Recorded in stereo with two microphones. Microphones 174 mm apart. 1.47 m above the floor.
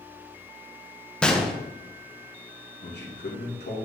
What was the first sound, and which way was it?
A gunshot, 5° left (ahead or behind).